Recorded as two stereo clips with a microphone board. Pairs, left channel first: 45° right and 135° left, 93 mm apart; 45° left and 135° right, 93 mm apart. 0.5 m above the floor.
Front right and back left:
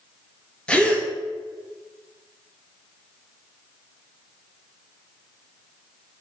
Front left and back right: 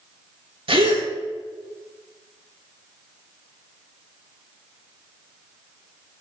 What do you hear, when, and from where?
0.7 s a gasp: 125° right, 2 m